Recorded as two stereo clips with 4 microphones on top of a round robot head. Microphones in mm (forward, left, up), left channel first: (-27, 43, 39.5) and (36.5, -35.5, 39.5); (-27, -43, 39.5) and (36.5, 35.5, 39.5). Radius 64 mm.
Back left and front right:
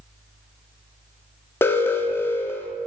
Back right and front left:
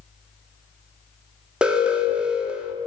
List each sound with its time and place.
1.6 s an alarm: 115° left, 0.5 m